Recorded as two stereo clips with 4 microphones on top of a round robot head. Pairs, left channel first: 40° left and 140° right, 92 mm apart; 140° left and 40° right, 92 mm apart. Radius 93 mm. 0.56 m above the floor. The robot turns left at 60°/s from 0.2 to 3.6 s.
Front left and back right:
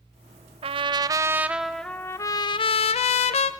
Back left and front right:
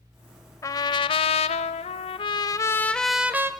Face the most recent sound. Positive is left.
turn(degrees=15)